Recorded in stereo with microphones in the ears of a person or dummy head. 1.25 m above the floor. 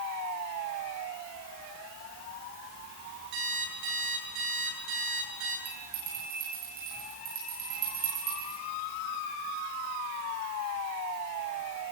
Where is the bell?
45° right (ahead or behind), 9.5 m.